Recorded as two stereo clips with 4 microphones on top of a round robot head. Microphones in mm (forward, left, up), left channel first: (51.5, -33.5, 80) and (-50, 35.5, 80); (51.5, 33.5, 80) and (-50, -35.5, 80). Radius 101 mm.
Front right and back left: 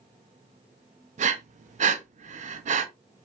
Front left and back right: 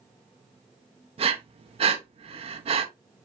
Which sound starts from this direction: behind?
Breathing, at 1.2 s.